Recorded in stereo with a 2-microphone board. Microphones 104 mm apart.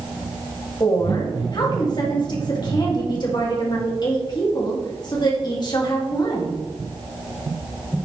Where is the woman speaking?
45° left (ahead or behind), 3 m.